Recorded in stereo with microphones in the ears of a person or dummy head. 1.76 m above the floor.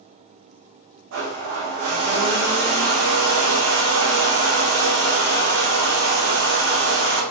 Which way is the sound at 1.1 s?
65° right (ahead or behind).